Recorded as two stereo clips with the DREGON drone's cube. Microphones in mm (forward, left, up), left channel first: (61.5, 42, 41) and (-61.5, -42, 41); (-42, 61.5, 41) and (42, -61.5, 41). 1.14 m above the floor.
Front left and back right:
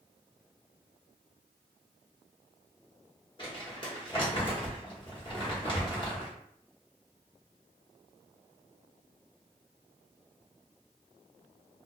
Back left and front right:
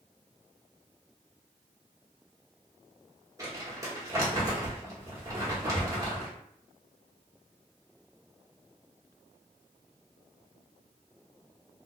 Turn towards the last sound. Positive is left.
turn(degrees=0)